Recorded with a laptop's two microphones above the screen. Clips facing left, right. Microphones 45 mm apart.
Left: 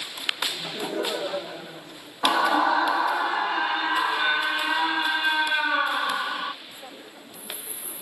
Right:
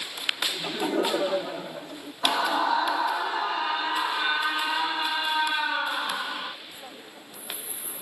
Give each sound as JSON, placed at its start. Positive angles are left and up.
{"t": 0.5, "sound": "laughter", "side_deg": -60, "distance_m": 2.0}
{"t": 2.2, "sound": "a scream", "side_deg": 20, "distance_m": 0.8}